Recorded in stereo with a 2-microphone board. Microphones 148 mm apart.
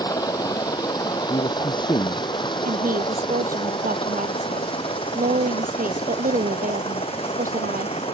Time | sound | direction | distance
0.0 | a helicopter | 25° left (ahead or behind) | ?
1.2 | a man speaking | 35° left (ahead or behind) | ?
2.6 | a woman speaking | 70° right (ahead or behind) | ?